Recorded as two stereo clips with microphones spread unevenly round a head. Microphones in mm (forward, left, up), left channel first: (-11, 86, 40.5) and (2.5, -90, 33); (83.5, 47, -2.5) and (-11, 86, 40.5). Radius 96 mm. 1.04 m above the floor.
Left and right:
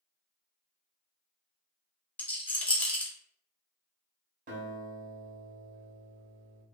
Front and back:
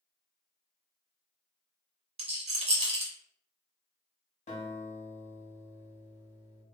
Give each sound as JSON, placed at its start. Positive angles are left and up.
{"t": 2.2, "sound": "a rattle", "azimuth_deg": 175, "distance_m": 0.7}
{"t": 4.5, "sound": "a guitar", "azimuth_deg": -55, "distance_m": 0.7}